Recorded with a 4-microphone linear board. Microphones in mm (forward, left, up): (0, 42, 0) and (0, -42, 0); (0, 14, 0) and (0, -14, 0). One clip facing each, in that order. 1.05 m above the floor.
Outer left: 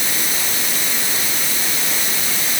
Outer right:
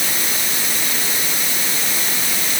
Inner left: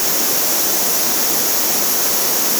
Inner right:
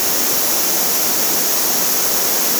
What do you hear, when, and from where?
Only background noise.